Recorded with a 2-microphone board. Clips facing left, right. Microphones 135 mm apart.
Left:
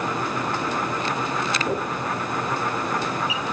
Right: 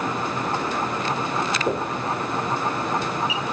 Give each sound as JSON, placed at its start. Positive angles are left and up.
{"t": 1.7, "sound": "knocking", "side_deg": -15, "distance_m": 6.5}